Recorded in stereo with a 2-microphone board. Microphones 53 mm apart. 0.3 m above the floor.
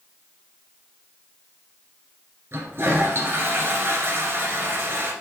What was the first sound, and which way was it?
A toilet flushing, 50° right (ahead or behind).